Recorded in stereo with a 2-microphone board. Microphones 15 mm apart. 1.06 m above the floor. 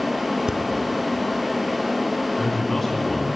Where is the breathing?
55° right (ahead or behind), 1.8 m.